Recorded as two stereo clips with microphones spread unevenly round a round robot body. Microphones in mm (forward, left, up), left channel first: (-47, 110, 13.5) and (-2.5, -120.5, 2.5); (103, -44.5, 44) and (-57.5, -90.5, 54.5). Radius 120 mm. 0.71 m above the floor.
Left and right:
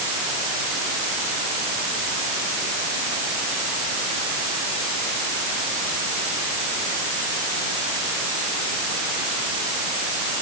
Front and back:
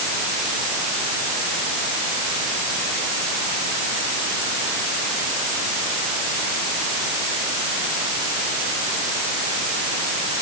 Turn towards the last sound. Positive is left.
No sound to turn to.